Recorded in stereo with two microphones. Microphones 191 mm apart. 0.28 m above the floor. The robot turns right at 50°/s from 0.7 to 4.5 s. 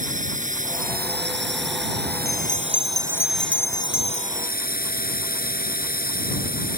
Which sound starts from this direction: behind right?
A drone, at 0.0 s.